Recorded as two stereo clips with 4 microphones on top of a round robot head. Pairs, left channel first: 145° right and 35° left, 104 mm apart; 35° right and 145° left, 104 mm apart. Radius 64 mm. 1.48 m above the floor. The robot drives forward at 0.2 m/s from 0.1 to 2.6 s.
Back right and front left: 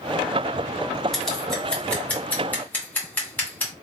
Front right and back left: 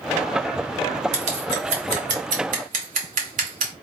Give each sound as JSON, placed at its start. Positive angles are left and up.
{"t": 1.1, "sound": "scissors", "azimuth_deg": 130, "distance_m": 0.9}